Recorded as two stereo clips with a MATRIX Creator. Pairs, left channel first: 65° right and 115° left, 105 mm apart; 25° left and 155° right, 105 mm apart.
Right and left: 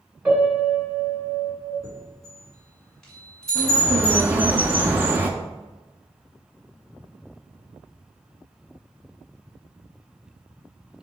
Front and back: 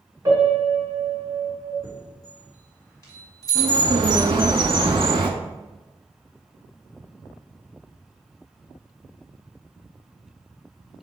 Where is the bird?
Straight behind, 0.5 m.